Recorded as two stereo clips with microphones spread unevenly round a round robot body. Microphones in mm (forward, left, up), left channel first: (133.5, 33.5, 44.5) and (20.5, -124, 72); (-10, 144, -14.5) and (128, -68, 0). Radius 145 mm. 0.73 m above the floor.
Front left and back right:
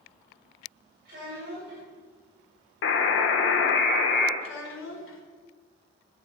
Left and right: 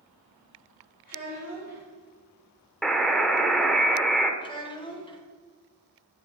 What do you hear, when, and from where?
1.1 s a child speaking: straight behind, 3 m
2.8 s a buzzer: 35° left, 0.7 m
4.4 s a child speaking: 50° left, 1.5 m